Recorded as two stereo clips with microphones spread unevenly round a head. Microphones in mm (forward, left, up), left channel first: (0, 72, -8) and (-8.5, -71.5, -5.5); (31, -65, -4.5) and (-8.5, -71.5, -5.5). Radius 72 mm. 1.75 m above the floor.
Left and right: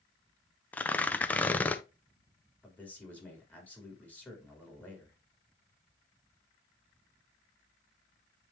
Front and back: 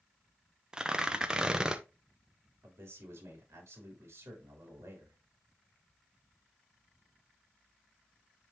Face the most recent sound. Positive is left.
turn(degrees=165)